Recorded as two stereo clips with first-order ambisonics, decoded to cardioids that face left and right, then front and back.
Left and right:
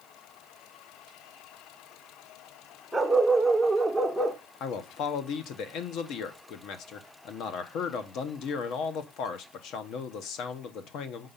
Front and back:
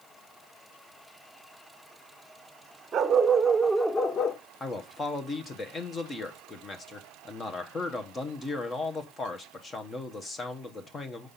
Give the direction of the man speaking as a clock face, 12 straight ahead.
10 o'clock.